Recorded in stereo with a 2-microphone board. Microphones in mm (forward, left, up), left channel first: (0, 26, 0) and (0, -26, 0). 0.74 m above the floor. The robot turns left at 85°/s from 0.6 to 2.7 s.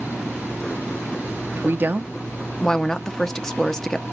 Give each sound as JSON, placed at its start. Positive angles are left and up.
{"t": 1.6, "sound": "a woman speaking", "azimuth_deg": -100, "distance_m": 0.6}